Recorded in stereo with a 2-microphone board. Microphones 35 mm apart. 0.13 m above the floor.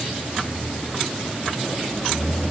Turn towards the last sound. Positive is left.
No sound to turn to.